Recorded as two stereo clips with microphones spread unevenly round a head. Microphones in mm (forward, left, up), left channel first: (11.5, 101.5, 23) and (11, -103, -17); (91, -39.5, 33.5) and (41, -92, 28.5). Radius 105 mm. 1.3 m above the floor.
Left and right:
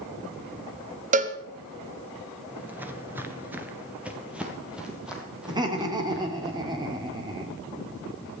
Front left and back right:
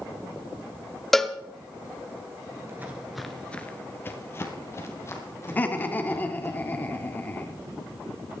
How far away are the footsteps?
About 1.6 m.